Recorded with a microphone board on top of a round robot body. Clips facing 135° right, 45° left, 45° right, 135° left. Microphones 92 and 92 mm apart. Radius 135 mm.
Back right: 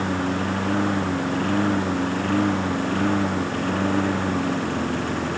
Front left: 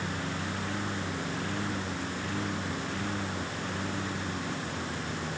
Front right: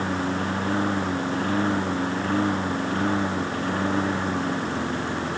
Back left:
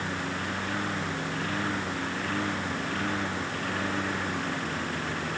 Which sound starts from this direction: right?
A lawn mower, at 0.0 s.